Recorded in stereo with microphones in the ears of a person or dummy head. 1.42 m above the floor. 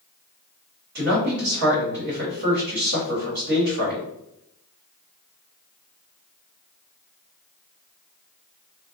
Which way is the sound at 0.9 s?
50° right (ahead or behind).